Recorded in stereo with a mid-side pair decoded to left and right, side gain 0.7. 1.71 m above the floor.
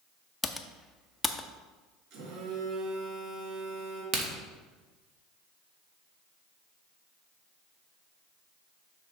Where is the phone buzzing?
65° right, 3 m.